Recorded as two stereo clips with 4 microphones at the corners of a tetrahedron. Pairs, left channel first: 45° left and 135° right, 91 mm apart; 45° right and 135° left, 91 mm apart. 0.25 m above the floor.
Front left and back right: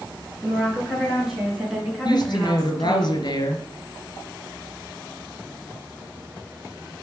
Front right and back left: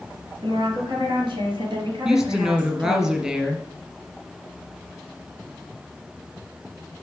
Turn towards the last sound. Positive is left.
turn(degrees=60)